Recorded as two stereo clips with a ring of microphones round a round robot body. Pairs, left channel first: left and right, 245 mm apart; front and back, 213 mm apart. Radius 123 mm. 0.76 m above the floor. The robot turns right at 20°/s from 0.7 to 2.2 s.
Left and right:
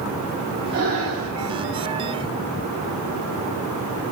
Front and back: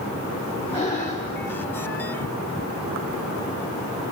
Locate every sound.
0.7 s breathing: 70° right, 2 m; by 1.3 s 55° right, 2 m